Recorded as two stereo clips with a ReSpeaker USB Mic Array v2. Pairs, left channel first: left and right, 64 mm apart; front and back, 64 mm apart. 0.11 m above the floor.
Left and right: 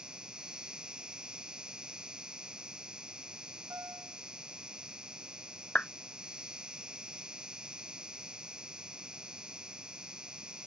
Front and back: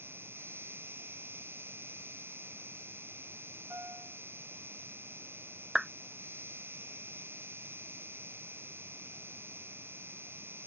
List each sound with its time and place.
0.0 s an insect: 160° right
3.7 s a piano: 130° right
5.8 s a clap: 105° left